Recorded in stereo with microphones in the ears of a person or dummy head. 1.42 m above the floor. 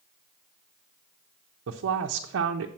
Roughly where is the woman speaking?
Right.